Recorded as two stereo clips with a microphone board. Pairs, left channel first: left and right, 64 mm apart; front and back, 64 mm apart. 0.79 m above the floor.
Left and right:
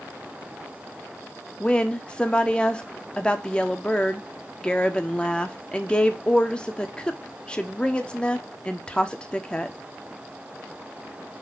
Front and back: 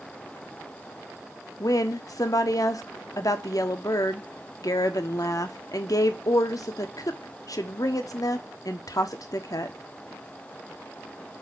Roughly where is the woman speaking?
Ahead.